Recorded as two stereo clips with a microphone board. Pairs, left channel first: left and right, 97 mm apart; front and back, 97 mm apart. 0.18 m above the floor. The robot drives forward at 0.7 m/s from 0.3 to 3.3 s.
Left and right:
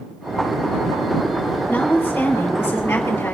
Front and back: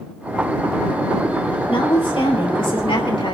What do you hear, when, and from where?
1.7 s a woman speaking: 15° left, 4.5 m; by 3.4 s 20° left, 3.5 m